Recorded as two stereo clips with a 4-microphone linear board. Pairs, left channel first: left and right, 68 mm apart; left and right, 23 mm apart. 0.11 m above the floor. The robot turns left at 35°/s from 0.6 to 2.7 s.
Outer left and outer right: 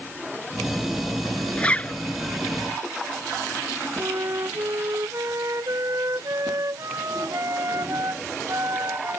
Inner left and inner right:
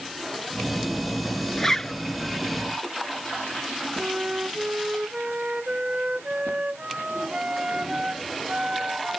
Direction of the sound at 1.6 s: 15° left (ahead or behind).